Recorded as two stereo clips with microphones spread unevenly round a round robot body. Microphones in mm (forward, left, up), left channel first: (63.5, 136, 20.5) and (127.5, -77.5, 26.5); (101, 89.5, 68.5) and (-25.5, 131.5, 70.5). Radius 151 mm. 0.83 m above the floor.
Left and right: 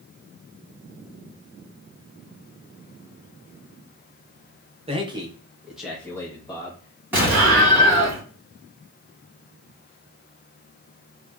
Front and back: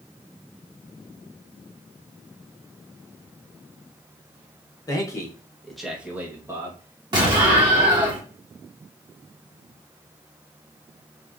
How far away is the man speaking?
About 1.0 m.